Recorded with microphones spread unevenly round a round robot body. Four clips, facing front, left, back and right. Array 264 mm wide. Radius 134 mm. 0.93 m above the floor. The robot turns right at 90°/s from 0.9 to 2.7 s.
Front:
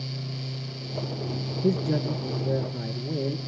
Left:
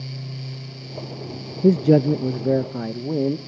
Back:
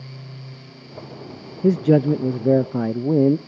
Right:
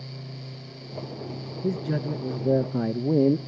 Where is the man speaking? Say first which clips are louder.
Left 13 dB, back 10 dB; 105° left, 0.6 m; by 3.4 s 160° right, 0.6 m.